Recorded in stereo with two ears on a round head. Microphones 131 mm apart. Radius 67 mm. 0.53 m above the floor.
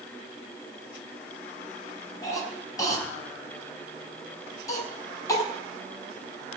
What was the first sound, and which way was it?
A cough, 25° left (ahead or behind).